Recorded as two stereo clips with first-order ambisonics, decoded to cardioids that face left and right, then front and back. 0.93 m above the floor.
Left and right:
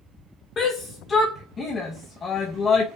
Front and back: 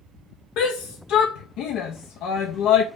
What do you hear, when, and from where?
0.6 s a shout: 30° left, 0.5 m